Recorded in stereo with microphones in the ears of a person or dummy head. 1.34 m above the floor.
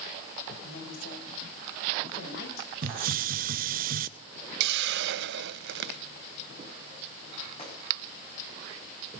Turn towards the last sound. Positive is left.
turn(degrees=25)  # may be behind; listen again after turning